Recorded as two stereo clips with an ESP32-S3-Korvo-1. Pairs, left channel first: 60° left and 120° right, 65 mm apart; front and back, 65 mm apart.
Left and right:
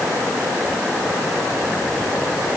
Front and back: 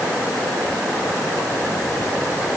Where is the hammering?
No hammering in this recording.